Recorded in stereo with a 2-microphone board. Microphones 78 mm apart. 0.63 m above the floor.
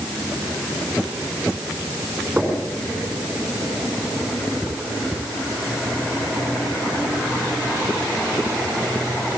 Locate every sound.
2.4 s knocking: 20° right (ahead or behind), 6 m